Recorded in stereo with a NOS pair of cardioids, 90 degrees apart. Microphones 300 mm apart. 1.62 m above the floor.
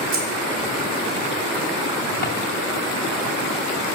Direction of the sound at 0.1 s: 50° right.